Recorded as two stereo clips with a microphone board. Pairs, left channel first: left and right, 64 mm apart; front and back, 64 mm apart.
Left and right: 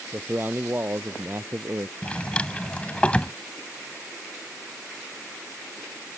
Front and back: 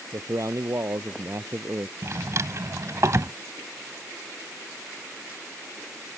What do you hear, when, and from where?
0.1 s a man speaking: 150° right; by 1.9 s 135° right
2.0 s a drawer: 155° left